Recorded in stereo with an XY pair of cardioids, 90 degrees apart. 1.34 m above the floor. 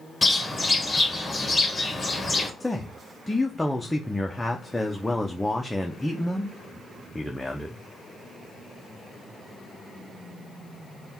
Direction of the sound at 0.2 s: 20° left.